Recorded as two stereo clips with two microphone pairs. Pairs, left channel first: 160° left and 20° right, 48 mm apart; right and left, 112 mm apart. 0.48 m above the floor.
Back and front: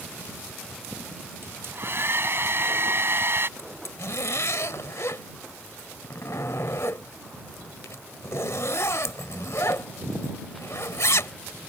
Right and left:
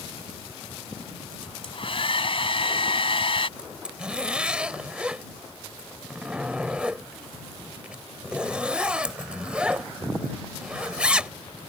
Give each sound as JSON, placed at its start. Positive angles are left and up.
{"t": 1.4, "sound": "a hair dryer", "azimuth_deg": -55}
{"t": 3.6, "sound": "a zipper", "azimuth_deg": 170}